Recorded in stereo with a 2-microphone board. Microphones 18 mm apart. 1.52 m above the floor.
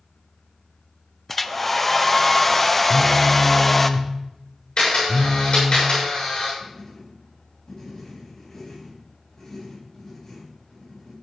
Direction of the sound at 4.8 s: 70° left (ahead or behind).